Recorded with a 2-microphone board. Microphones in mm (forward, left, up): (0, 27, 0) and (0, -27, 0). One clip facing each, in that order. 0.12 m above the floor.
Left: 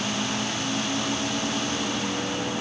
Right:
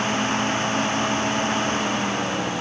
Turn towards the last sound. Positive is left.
No sound to turn to.